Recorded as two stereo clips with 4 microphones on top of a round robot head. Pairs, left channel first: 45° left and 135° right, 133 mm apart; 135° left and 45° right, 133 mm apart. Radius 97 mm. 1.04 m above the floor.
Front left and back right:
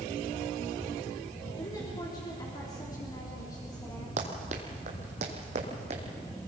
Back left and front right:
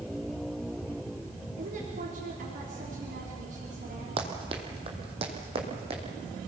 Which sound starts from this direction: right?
Running footsteps, at 4.2 s.